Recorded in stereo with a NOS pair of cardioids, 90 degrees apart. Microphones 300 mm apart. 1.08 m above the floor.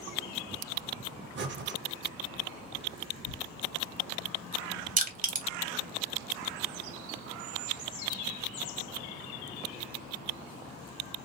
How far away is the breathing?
About 0.7 m.